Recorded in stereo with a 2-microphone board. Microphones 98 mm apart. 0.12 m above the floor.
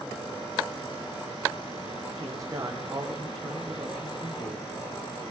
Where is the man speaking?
35° right (ahead or behind), 5.5 m.